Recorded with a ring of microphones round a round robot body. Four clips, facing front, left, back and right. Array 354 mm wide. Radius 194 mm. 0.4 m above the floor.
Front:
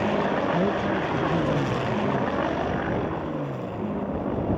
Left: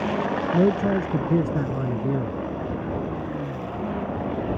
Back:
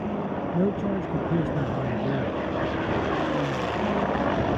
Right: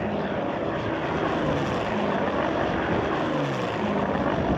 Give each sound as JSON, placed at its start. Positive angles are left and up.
{"t": 0.5, "sound": "a man speaking", "azimuth_deg": 100}